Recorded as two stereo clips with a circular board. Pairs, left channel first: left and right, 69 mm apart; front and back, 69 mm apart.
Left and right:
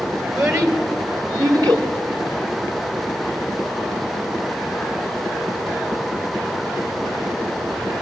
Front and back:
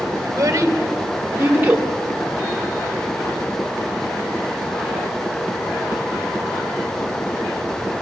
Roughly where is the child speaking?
Behind right.